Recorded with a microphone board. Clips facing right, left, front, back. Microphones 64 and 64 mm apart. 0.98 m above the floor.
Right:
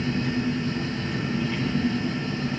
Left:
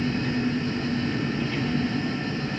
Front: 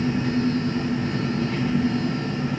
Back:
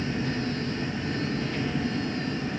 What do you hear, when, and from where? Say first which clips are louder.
0.0 s an engine running: even, front 7 dB; 10° right, 4.5 m